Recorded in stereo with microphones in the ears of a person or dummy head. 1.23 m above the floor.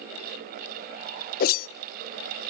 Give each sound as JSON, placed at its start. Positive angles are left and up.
{"t": 1.4, "sound": "a whoosh", "side_deg": 55, "distance_m": 0.5}